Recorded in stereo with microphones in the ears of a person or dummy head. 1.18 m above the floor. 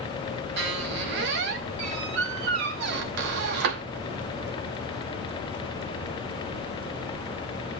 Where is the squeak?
60° right (ahead or behind), 0.9 m.